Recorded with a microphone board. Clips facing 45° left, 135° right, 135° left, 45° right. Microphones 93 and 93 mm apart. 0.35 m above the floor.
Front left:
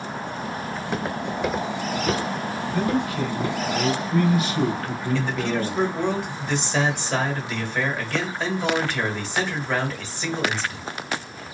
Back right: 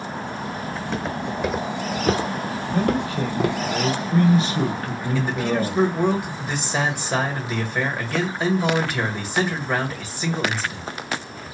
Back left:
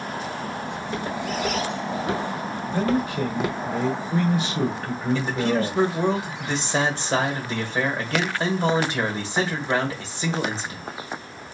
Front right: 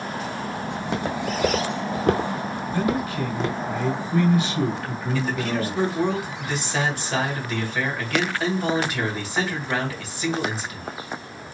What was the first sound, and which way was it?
Footsteps, 30° right.